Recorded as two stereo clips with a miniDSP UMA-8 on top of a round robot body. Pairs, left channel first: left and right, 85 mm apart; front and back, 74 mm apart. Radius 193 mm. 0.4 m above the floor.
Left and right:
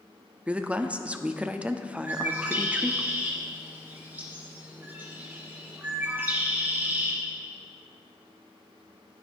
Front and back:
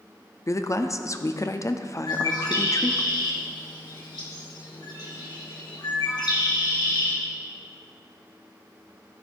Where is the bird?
25° right, 2.5 m.